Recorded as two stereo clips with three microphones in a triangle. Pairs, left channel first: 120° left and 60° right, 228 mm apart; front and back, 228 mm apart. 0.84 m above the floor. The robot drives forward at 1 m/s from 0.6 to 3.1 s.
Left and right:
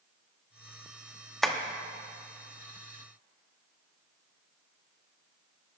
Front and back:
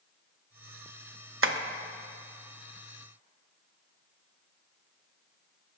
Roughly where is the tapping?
Behind right.